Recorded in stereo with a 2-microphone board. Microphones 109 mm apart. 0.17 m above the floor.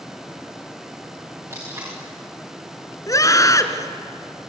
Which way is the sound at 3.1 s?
30° left (ahead or behind).